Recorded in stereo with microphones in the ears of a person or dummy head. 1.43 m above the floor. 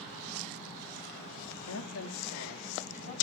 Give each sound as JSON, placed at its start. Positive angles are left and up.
{"t": 1.7, "sound": "a woman speaking", "side_deg": 80, "distance_m": 0.6}